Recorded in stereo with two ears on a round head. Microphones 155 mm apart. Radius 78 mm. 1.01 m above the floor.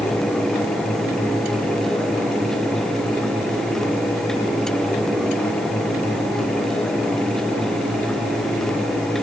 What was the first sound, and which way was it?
Only background noise.